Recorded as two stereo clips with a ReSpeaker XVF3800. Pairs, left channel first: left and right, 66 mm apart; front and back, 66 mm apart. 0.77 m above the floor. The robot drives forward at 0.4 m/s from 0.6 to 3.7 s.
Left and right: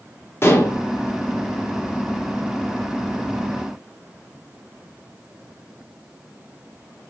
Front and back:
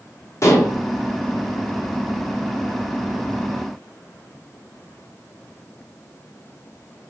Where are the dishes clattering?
40° left, 0.8 m.